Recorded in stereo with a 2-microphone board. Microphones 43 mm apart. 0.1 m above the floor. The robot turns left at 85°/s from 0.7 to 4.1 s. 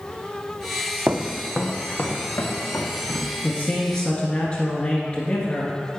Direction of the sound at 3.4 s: 125° left.